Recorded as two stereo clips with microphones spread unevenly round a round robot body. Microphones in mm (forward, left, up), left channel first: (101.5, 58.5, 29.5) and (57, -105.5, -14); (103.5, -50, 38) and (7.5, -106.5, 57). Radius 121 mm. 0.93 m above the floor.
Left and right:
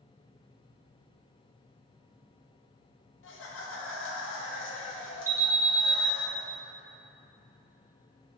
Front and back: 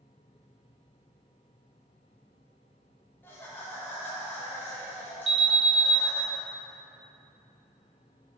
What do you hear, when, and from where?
3.2 s laughter: 95° left, 1.2 m
5.3 s an alarm: 155° right, 1.6 m